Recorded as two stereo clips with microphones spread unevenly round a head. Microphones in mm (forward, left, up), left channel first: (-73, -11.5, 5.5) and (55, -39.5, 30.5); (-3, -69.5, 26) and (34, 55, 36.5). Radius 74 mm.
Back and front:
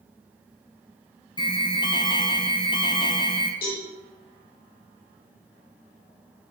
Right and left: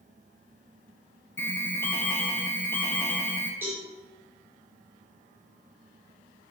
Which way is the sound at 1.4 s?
170° right.